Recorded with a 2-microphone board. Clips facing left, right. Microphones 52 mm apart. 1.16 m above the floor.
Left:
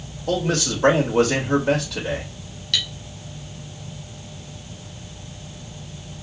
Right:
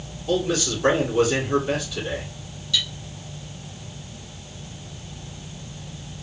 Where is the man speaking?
80° left, 2 m.